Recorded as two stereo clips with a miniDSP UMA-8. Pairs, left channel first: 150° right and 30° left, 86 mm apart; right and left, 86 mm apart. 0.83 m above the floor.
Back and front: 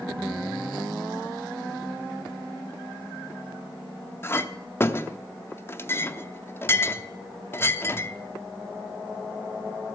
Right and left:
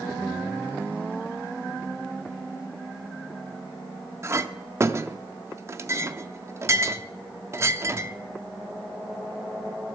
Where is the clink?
150° left, 0.7 m.